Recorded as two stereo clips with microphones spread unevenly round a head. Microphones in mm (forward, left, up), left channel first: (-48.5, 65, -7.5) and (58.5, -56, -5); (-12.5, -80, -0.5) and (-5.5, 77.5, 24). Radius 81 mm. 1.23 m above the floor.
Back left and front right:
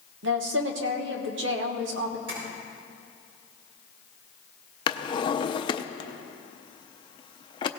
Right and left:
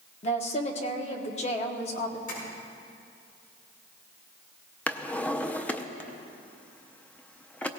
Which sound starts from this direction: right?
Tapping, at 2.3 s.